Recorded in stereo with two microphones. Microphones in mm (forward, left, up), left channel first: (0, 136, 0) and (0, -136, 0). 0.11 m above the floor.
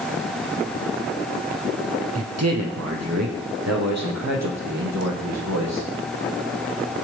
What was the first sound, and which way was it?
A man speaking, 65° right (ahead or behind).